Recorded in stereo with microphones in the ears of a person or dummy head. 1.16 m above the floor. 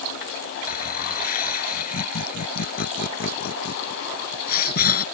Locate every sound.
0.7 s laughter: 50° left (ahead or behind)